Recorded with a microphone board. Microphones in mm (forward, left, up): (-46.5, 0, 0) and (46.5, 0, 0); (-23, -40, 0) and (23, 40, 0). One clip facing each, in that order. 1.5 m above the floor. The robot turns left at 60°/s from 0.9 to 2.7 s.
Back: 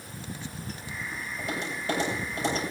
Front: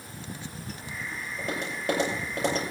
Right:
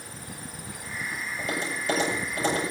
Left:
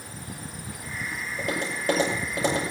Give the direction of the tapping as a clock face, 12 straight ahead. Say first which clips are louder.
Front 1 dB, left 2 dB; 10 o'clock.